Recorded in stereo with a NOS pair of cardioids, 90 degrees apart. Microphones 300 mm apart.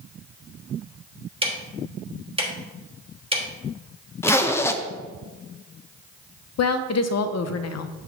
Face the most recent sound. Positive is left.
turn(degrees=60)